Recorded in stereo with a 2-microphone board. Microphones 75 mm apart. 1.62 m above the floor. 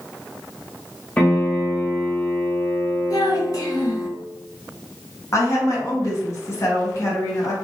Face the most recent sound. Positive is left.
turn(degrees=45)  # may be behind; listen again after turning